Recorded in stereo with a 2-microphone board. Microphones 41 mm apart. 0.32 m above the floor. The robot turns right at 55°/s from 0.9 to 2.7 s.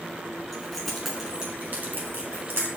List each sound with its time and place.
0.5 s keys jangling: 5° left (ahead or behind), 2 m; by 2.7 s 75° right (ahead or behind), 2 m